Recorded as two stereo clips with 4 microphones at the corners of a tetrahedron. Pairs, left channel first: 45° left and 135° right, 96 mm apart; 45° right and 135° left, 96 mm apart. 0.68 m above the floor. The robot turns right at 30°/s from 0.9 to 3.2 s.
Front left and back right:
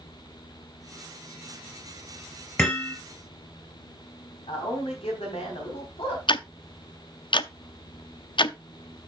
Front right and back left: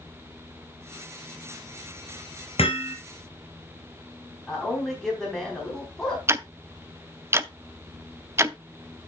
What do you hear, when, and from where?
2.6 s hammering: 30° right, 3.5 m; by 3.0 s 20° right, 3.5 m
4.5 s a man speaking: 40° left, 4 m
6.3 s ticking: 75° left, 0.6 m